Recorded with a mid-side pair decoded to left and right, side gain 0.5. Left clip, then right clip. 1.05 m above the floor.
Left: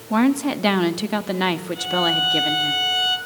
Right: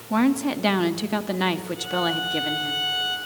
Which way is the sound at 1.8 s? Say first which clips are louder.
Left 8 dB; 50° left.